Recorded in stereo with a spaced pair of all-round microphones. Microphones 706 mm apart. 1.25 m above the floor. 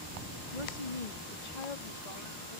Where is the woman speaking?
80° left; by 2.6 s 55° left (ahead or behind).